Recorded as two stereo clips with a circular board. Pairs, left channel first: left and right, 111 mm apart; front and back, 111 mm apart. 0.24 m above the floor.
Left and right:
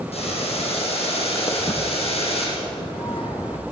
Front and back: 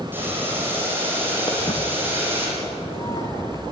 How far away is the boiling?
About 6 m.